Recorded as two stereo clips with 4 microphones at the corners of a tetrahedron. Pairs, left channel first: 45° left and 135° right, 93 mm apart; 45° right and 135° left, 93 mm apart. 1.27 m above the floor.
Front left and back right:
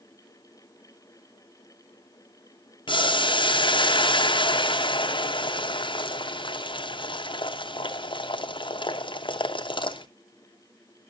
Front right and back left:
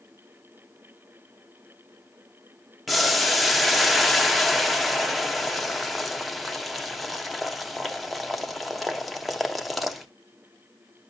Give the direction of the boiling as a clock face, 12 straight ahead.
10 o'clock.